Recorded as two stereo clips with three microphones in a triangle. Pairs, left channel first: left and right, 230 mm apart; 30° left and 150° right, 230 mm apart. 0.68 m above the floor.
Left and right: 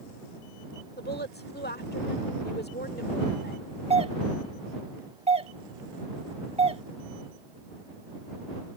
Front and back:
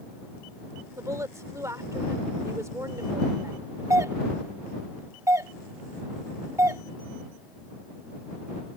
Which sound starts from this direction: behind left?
A woman speaking, at 1.0 s.